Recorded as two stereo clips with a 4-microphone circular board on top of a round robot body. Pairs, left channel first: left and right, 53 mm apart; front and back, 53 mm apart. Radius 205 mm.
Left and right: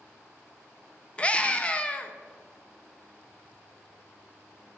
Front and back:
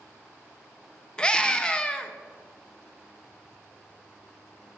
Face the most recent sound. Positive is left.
turn(degrees=55)